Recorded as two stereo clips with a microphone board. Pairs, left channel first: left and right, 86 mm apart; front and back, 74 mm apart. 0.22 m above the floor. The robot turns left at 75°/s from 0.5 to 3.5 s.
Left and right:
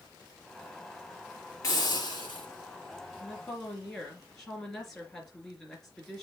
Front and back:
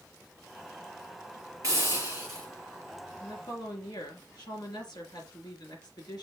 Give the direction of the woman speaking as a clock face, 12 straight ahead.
11 o'clock.